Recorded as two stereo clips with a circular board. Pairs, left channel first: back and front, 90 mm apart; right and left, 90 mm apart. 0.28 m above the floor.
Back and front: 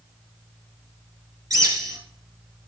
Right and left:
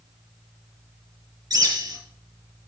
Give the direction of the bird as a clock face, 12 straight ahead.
10 o'clock.